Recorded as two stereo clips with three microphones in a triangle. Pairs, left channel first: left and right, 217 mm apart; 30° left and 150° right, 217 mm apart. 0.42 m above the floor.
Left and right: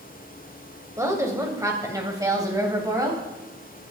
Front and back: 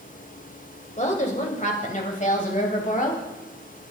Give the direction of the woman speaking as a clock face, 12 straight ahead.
1 o'clock.